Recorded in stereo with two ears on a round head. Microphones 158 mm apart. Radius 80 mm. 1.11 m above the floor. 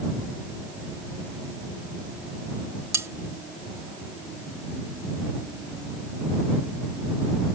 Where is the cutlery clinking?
15° right (ahead or behind).